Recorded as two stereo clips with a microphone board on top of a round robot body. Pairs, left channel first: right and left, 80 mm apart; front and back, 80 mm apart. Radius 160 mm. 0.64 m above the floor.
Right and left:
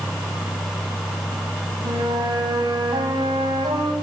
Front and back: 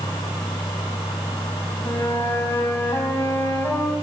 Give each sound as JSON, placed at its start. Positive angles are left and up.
{"t": 1.8, "sound": "a flute", "azimuth_deg": 65, "distance_m": 5.5}